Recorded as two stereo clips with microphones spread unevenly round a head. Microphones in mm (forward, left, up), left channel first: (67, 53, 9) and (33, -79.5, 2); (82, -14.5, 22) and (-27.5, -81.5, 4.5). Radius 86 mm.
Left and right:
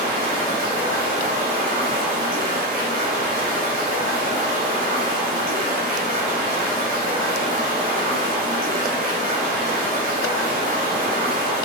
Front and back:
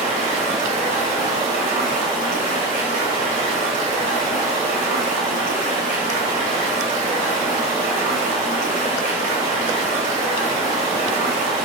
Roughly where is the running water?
Behind right.